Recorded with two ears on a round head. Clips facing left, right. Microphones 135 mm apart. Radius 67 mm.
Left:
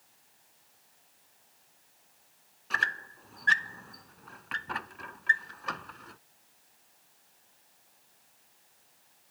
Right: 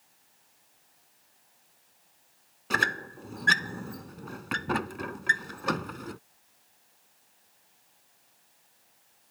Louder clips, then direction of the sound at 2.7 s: Right 5 dB; 55° right (ahead or behind).